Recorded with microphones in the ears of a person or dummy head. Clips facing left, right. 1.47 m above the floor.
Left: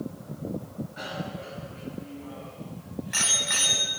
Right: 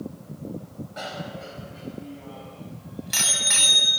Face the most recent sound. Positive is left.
turn(degrees=-50)  # may be behind; listen again after turning